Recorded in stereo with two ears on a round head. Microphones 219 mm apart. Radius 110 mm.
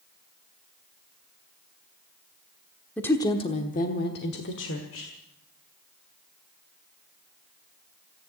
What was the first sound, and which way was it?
A woman speaking, 5° left (ahead or behind).